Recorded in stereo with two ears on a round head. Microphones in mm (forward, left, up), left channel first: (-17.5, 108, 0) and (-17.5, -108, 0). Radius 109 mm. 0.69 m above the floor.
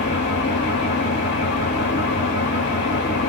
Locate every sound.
0.0 s an engine running: 45° left (ahead or behind), 1.4 m